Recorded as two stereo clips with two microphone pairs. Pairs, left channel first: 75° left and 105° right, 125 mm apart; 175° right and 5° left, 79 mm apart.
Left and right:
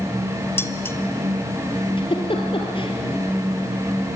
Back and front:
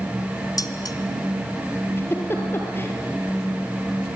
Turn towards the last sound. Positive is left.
turn(degrees=125)